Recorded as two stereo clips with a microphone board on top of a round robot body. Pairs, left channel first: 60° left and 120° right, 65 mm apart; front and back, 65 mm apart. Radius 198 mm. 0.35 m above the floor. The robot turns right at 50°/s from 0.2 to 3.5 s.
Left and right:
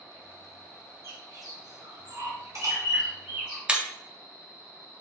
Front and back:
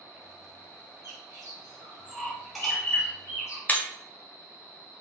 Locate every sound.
1.0 s a bird: 165° right, 2.0 m; by 3.6 s 45° right, 2.0 m
3.7 s breaking glass: 55° right, 0.8 m